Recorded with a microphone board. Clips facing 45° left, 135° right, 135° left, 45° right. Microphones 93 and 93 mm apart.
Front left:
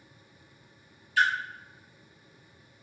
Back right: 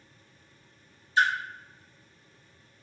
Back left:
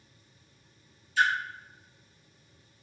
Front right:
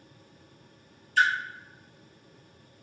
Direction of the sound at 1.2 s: 75° right.